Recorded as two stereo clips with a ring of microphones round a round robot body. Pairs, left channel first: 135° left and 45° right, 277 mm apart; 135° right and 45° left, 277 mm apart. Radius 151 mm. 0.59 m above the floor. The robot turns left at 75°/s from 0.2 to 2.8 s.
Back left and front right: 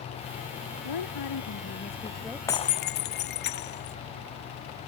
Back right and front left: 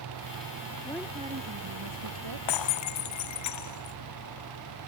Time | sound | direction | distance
0.8 | a woman speaking | 145° left | ?
2.5 | breaking glass | 145° right | ?